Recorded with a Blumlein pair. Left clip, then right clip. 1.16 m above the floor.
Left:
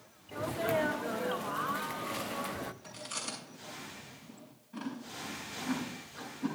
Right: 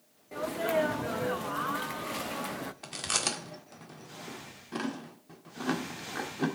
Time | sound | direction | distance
0.3 | a sneeze | 5° right | 0.6 m
2.8 | chewing | 45° right | 1.7 m